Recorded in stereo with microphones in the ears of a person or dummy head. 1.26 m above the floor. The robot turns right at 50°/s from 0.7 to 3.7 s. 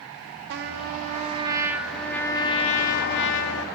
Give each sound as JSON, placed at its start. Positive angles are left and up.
{"t": 0.5, "sound": "a trumpet", "azimuth_deg": -65, "distance_m": 0.6}